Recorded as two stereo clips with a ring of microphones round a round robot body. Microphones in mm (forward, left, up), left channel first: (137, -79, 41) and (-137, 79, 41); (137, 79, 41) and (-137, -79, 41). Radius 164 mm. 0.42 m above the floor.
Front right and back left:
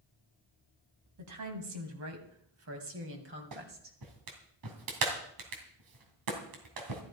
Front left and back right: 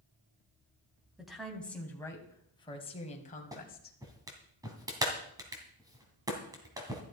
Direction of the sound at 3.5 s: 130° left.